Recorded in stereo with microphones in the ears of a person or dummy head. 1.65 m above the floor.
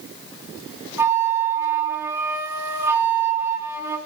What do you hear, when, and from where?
1.0 s a flute: 10° right (ahead or behind), 3.5 m